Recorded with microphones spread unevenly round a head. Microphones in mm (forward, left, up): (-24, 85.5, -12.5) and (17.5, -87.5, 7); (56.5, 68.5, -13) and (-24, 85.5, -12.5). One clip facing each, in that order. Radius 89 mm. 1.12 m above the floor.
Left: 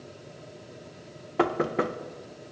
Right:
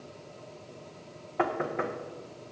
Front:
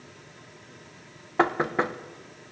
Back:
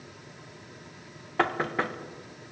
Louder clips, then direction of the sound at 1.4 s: Left 4 dB, front 3 dB; 60° left.